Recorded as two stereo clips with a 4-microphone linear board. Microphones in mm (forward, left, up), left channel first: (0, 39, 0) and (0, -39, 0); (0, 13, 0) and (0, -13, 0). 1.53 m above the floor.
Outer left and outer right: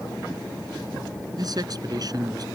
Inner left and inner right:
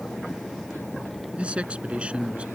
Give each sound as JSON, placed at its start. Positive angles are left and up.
{"t": 1.4, "sound": "a man speaking", "side_deg": -55}